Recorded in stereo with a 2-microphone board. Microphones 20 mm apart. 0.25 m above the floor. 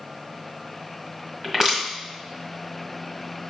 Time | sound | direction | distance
1.4 | crushing | 20° right (ahead or behind) | 1.4 m